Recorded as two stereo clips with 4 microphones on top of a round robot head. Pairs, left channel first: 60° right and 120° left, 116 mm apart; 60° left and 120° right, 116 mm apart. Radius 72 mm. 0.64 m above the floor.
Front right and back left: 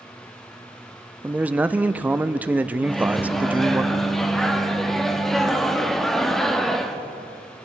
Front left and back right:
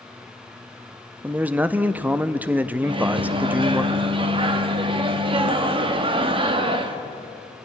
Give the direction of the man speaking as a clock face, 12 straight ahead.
6 o'clock.